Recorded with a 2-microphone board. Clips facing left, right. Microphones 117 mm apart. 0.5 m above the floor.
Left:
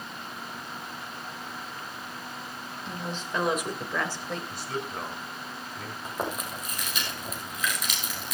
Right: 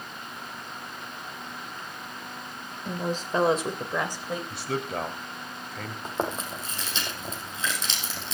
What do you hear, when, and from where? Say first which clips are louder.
2.9 s a woman speaking: right 6 dB; 45° right (ahead or behind), 2 m; by 4.4 s 10° right (ahead or behind), 3 m
4.5 s a man speaking: right 3 dB; 65° right (ahead or behind), 3 m
6.0 s chewing: right 3 dB; 25° right (ahead or behind), 4.5 m